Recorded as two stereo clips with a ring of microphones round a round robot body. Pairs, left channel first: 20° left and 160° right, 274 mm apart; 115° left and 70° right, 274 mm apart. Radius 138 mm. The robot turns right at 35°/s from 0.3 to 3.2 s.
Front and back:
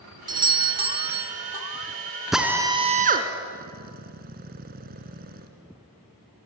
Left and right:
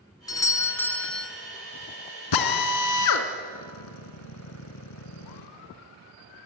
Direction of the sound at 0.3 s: 165° left.